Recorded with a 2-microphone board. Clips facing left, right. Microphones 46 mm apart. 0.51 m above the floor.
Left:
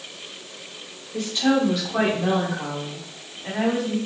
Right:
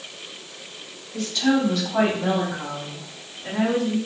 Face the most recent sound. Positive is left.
turn(degrees=10)  # may be behind; listen again after turning